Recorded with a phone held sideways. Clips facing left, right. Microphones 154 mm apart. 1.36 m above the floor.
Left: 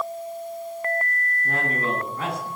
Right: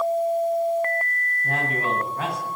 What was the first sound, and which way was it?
A man speaking, 75° right (ahead or behind).